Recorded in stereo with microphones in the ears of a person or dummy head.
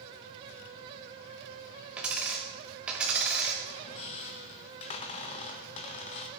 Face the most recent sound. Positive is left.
turn(degrees=40)  # may be behind; listen again after turning